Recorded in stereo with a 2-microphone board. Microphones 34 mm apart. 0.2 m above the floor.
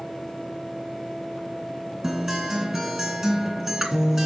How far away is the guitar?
About 2.5 m.